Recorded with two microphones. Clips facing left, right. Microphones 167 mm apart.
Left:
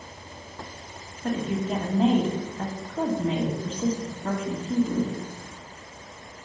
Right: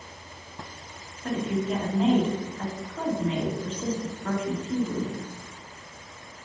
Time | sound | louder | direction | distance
1.2 | a woman speaking | even | 35° left (ahead or behind) | 1.7 m